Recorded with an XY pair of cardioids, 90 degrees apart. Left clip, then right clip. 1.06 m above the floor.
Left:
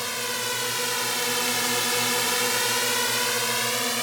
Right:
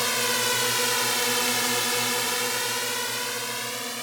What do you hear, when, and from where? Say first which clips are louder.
0.0 s a drone: right 4 dB; 35° right; by 4.0 s 50° left